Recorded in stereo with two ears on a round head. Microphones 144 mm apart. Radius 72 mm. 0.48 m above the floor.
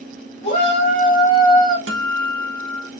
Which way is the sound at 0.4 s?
50° left (ahead or behind).